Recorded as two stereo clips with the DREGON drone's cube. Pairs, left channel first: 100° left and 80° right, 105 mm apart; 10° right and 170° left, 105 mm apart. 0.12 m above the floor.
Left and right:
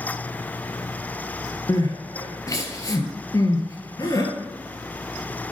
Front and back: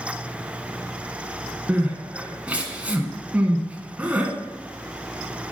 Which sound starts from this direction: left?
Crying, at 1.7 s.